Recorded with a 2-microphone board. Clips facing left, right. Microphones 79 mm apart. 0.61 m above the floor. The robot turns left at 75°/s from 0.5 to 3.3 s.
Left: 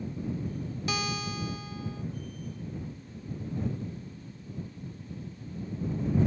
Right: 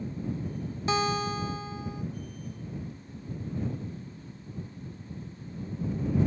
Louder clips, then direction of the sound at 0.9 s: Right 7 dB; 65° right.